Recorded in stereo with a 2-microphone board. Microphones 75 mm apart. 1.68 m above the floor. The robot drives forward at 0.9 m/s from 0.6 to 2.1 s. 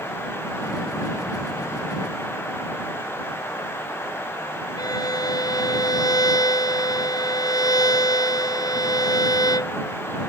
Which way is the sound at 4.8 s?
60° left (ahead or behind).